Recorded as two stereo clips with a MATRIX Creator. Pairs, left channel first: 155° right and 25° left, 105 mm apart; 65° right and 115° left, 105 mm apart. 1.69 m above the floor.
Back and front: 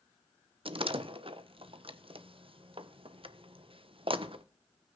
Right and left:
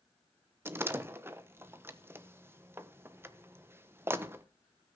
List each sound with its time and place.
0.7 s a door slam: 45° left, 1.1 m